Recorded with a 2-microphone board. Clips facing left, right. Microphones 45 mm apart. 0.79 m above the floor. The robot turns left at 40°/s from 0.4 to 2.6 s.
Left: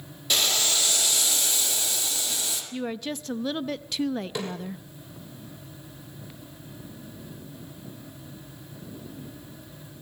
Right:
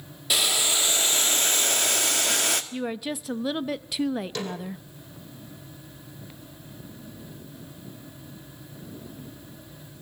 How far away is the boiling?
About 1.7 m.